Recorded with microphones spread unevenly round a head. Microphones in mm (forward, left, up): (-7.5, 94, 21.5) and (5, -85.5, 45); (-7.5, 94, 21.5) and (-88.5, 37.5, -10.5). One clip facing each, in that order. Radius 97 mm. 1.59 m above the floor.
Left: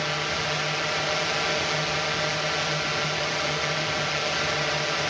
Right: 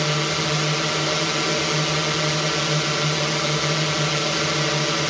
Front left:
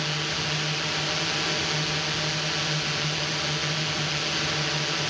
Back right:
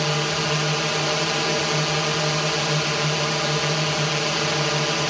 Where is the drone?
110° right.